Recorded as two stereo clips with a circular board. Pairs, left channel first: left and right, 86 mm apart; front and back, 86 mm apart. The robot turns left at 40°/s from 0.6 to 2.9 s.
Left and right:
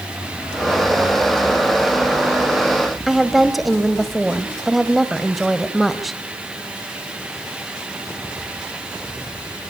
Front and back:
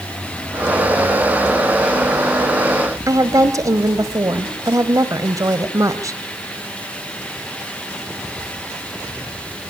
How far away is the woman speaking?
About 1.2 m.